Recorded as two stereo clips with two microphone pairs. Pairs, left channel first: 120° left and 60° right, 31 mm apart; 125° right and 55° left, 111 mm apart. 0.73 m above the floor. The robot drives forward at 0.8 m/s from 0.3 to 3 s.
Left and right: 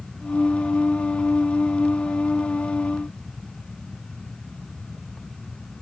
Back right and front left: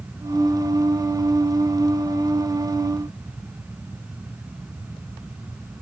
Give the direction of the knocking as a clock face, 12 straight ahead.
No knocking in this recording.